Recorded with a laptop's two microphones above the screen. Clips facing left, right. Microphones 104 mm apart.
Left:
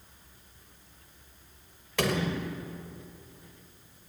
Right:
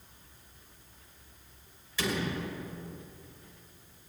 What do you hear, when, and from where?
2.0 s a door slam: 65° left (ahead or behind), 2.5 m